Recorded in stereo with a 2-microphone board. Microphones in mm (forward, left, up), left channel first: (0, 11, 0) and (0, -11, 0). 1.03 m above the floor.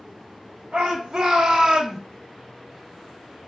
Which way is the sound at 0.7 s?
60° right (ahead or behind).